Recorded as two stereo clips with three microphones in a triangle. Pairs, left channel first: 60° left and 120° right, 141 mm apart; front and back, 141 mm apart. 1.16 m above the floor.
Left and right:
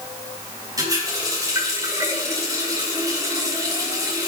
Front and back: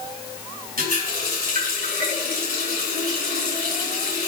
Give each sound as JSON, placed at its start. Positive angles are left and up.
{"t": 0.8, "sound": "a running tap", "azimuth_deg": 175, "distance_m": 5.5}